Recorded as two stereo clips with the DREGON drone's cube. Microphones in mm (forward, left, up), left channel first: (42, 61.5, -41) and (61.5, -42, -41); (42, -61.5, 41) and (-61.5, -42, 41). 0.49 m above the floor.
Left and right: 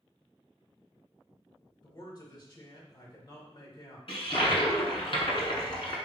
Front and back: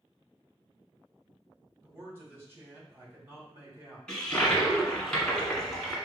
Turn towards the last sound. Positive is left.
turn(degrees=70)